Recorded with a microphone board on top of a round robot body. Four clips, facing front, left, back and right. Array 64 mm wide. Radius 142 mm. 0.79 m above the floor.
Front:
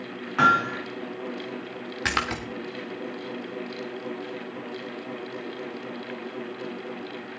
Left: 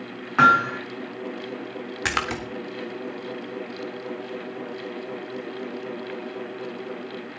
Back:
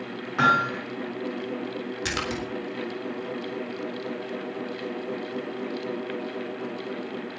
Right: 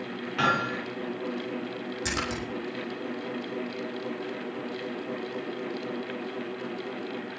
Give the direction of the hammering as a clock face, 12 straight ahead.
9 o'clock.